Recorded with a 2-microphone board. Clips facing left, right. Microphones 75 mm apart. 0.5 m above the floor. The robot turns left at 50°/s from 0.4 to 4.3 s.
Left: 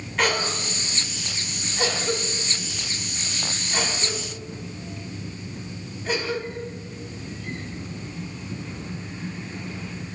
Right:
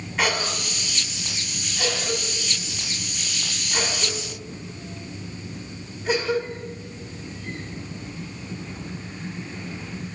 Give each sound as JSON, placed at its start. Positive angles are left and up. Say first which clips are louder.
{"t": 0.2, "sound": "a cough", "louder": "left 1 dB", "side_deg": -5, "distance_m": 1.5}